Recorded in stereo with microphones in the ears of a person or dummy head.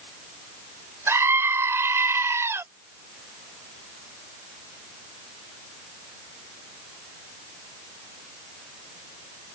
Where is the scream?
15° right (ahead or behind).